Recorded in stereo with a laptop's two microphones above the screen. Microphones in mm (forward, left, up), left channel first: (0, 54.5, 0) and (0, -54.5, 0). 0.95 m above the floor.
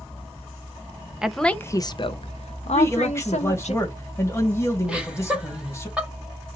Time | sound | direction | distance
1.2 | a woman speaking | 5° right (ahead or behind) | 0.5 m
2.7 | a man speaking | 25° left (ahead or behind) | 1.4 m
4.9 | laughter | 10° right (ahead or behind) | 1.5 m